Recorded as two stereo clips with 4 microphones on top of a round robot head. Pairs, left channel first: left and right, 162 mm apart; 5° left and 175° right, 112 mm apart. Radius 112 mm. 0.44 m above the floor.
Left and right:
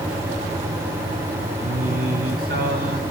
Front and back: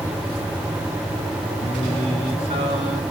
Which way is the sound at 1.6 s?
120° right.